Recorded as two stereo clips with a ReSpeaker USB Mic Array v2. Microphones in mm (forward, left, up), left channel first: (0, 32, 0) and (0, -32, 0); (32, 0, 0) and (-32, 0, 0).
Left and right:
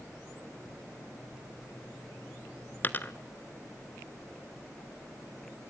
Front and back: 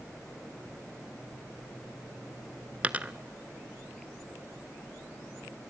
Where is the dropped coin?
125° left, 0.9 m.